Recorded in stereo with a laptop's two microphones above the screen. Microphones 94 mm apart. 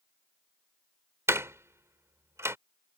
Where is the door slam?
30° right (ahead or behind).